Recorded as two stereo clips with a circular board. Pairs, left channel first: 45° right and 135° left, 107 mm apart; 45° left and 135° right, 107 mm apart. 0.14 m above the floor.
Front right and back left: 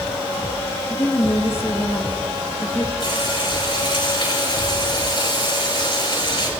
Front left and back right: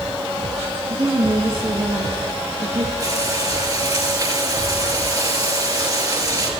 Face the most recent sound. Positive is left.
turn(degrees=-85)